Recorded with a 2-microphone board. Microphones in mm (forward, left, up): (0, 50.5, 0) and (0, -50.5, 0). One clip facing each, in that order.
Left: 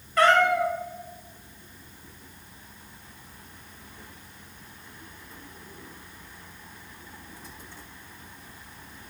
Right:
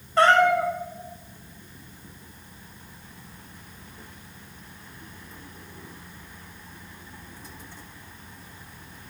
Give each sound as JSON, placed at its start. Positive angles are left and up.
{"t": 0.2, "sound": "a cat meowing", "side_deg": -30, "distance_m": 0.5}